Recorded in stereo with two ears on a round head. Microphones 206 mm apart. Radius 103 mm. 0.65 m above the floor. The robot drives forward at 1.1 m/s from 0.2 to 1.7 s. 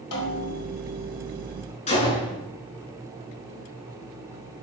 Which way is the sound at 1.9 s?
30° left (ahead or behind).